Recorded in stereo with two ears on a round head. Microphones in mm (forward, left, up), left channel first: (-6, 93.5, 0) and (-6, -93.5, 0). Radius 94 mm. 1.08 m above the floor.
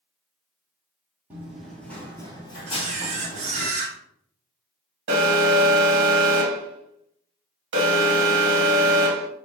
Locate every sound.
1.3 s running footsteps: 10° right (ahead or behind), 1.5 m; by 3.7 s 45° left (ahead or behind), 1.9 m
2.7 s a camera shutter: 35° right (ahead or behind), 1.0 m
5.1 s an alarm: 60° right (ahead or behind), 1.4 m